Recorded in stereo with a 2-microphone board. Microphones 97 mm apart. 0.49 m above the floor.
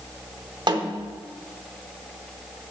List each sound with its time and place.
0.7 s a snare drum: 50° right (ahead or behind), 0.6 m